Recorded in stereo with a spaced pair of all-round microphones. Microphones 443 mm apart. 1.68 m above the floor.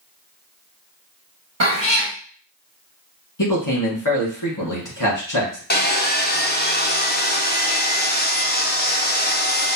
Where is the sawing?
20° left (ahead or behind), 0.6 m.